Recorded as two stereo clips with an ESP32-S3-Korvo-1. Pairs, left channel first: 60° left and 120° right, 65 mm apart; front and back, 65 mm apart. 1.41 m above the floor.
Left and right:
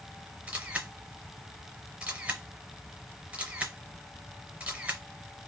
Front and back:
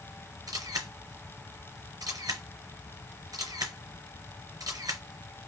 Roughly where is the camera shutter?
Behind.